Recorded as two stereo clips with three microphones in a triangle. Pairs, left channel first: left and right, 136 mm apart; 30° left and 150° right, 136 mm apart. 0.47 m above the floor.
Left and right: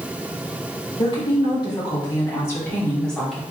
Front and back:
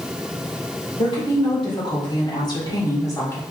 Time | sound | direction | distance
1.0 | a woman speaking | 60° left | 2.0 m